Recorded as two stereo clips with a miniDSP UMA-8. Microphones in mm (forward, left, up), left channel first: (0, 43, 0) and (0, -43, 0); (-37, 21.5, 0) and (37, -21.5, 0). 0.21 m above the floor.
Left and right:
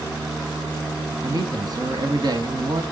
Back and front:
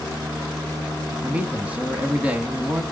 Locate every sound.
1.2 s a man speaking: 100° right, 1.7 m